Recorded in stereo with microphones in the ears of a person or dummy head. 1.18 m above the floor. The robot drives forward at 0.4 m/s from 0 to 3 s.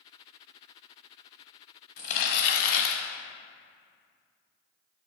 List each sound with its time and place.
2.0 s crumpling: 70° left (ahead or behind), 1.1 m; by 3.0 s 75° left (ahead or behind), 1.1 m